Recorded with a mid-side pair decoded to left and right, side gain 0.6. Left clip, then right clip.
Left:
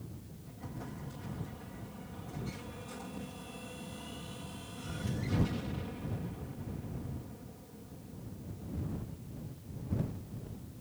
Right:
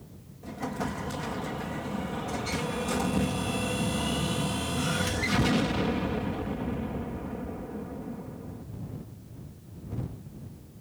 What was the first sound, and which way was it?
An explosion, 70° right.